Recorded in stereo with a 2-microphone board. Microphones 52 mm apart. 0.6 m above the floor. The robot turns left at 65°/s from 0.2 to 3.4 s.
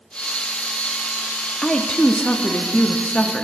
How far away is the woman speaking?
About 0.6 m.